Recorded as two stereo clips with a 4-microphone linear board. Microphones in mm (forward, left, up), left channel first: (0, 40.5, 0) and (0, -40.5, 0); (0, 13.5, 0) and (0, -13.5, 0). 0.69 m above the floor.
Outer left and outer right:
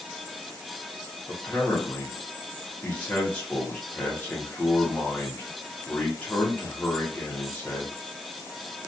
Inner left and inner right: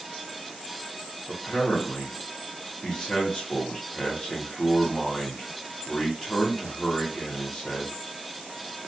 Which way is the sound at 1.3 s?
20° left (ahead or behind).